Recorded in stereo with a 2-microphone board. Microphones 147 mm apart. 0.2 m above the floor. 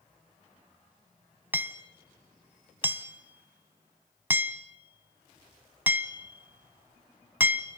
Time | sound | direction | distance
1.5 | hammering | 15° right (ahead or behind) | 1.1 m